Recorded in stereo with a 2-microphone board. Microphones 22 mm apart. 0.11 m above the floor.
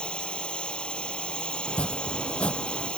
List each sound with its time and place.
0.0 s a drone: 55° left (ahead or behind)
1.7 s chopping: 70° left (ahead or behind)